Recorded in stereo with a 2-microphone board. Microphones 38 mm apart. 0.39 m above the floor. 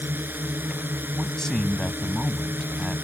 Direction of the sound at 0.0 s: 60° right (ahead or behind).